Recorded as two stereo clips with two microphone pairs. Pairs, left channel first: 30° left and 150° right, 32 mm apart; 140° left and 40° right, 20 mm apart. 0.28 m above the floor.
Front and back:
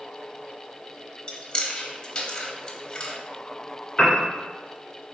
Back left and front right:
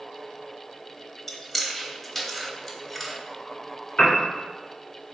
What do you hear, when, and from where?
1.3 s chewing: 70° left, 0.8 m
4.0 s a piano: 110° left, 1.5 m